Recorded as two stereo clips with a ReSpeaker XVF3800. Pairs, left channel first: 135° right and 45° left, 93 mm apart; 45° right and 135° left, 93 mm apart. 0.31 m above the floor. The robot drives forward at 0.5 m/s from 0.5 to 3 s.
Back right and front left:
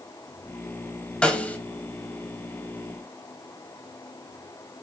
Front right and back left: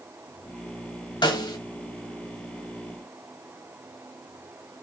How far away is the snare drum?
About 1.1 m.